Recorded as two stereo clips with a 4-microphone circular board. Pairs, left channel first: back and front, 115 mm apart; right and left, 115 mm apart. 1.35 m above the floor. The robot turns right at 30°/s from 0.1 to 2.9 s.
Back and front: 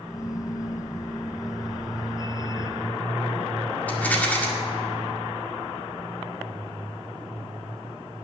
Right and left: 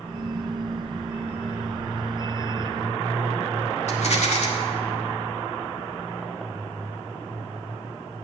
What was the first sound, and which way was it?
A rattle, 105° right.